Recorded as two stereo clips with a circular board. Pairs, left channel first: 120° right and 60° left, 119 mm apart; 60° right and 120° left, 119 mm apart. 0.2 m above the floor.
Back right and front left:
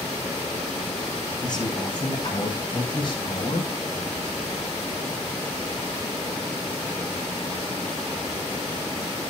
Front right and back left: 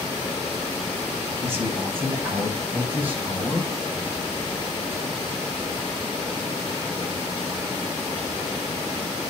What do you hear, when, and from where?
1.4 s a man speaking: 170° right, 10 m; by 3.7 s 160° right, 6.5 m